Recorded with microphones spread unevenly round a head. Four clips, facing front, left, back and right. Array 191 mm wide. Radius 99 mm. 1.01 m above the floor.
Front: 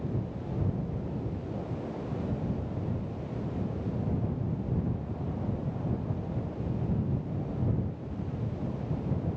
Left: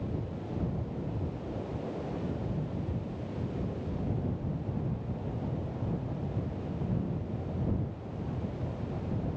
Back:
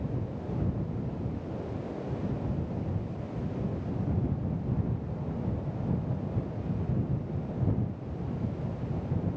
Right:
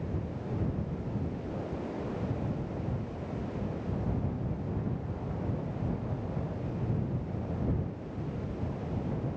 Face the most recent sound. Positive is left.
No sound to turn to.